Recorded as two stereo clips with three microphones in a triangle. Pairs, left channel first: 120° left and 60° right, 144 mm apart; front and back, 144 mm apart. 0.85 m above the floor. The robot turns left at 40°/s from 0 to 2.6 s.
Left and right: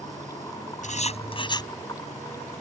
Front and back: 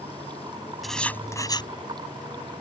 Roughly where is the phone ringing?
I don't hear a phone ringing.